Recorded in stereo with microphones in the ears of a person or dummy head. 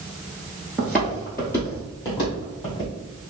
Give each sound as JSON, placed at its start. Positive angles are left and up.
{"t": 0.8, "sound": "footsteps", "side_deg": 0, "distance_m": 1.2}